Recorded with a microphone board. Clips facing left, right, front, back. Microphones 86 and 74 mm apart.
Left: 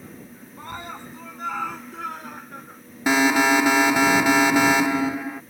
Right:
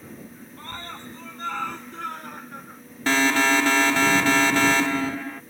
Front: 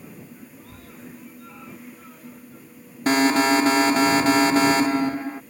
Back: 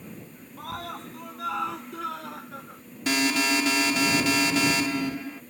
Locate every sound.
0.6 s a scream: 165° left; by 2.8 s straight behind
3.1 s an alarm: 20° left